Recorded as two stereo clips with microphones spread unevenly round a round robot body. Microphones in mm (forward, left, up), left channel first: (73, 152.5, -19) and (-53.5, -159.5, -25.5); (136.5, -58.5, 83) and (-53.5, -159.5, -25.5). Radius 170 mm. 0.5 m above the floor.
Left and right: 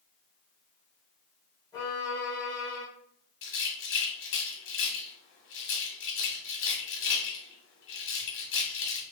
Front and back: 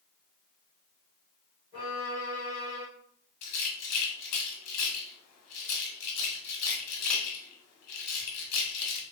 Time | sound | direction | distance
1.7 | a violin | 145° left | 1.8 m
3.4 | a rattle | 20° left | 1.5 m